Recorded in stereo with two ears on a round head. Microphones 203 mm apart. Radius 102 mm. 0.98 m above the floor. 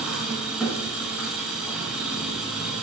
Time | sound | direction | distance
0.0 | an engine running | 5° right (ahead or behind) | 5.5 m